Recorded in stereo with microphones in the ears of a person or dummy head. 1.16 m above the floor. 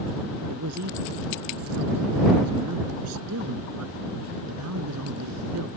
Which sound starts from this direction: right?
A man speaking, at 0.5 s.